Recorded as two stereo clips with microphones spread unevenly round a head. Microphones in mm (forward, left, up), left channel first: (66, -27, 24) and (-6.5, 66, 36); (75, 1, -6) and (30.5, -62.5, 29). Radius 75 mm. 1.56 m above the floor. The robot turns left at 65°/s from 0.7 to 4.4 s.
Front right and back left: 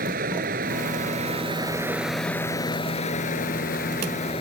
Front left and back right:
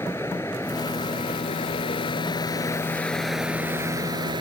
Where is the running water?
130° left; by 4.4 s 110° right.